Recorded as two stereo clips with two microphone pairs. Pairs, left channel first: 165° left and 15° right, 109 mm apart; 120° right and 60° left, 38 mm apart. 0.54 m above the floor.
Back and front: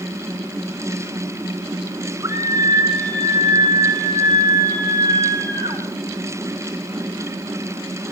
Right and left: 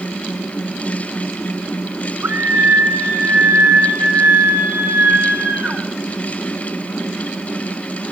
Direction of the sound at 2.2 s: 45° left.